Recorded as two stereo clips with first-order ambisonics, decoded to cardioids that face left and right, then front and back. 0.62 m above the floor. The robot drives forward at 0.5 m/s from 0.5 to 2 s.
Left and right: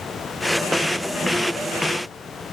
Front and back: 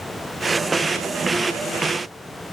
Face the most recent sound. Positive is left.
No sound to turn to.